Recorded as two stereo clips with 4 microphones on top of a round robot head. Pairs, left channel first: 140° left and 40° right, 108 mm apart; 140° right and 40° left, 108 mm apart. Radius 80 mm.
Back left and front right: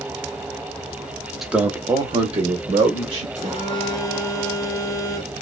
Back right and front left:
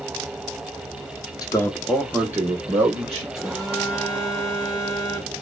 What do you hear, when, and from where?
1.4 s a man speaking: 130° right, 0.8 m; by 3.2 s 15° right, 1.9 m
3.4 s a phone buzzing: 45° right, 1.5 m